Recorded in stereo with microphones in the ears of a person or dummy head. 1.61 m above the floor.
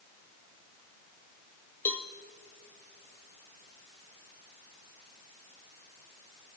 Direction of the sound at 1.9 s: 10° left (ahead or behind).